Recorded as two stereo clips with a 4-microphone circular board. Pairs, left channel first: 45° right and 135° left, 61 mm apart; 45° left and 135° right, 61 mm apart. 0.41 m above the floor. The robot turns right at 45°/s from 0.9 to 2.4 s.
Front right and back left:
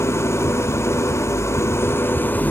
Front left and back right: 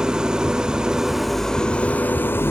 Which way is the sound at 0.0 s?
65° right.